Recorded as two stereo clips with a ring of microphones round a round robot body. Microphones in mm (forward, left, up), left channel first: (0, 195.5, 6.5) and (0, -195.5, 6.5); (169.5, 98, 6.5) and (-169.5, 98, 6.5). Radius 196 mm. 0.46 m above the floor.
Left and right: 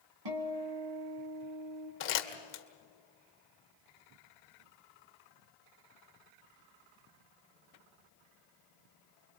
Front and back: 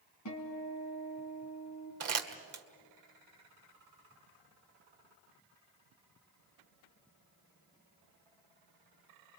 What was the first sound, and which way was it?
A guitar, 55° right.